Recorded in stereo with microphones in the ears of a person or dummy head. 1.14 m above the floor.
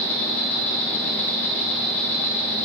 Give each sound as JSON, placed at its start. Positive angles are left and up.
{"t": 0.0, "sound": "an insect", "side_deg": 15, "distance_m": 2.5}